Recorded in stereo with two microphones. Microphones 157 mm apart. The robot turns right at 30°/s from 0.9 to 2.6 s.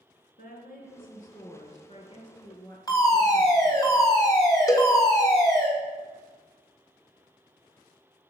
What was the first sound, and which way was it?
A woman speaking, 105° left.